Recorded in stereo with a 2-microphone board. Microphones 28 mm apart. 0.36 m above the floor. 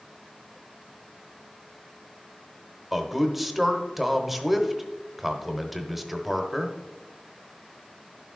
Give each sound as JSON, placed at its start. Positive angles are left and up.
{"t": 2.9, "sound": "a man speaking", "side_deg": -10, "distance_m": 0.9}